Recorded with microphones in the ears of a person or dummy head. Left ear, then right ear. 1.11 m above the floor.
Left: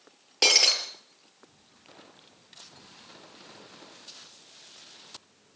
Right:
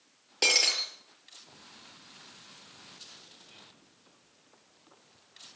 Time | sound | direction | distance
0.4 | breaking glass | 10° left (ahead or behind) | 6 m